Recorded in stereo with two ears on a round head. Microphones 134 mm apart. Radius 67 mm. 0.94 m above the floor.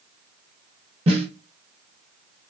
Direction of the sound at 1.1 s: 40° right (ahead or behind).